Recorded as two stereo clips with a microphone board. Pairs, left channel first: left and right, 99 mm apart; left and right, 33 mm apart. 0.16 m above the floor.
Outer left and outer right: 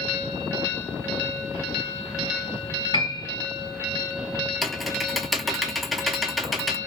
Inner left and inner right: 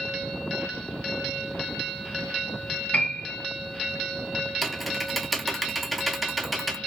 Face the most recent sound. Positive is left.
turn(degrees=0)  # may be behind; listen again after turning